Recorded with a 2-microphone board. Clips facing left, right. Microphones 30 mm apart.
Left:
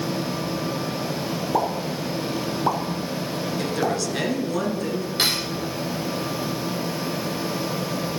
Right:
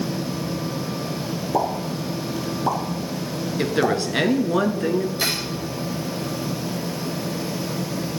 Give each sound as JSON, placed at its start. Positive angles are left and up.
{"t": 1.5, "sound": "a pop", "side_deg": 10, "distance_m": 1.3}
{"t": 3.6, "sound": "a woman speaking", "side_deg": -35, "distance_m": 1.6}
{"t": 5.2, "sound": "cutlery clinking", "side_deg": 65, "distance_m": 3.0}